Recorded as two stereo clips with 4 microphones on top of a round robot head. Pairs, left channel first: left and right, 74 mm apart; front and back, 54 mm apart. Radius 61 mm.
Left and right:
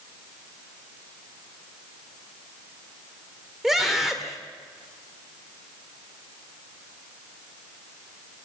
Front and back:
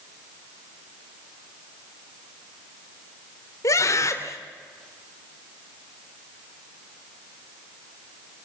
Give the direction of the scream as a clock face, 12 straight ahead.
12 o'clock.